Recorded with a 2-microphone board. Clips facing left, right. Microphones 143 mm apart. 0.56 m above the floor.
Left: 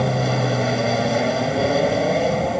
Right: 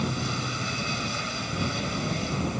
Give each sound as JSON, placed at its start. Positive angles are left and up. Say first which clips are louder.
{"t": 0.0, "sound": "an aircraft", "louder": "left 10 dB", "side_deg": 65}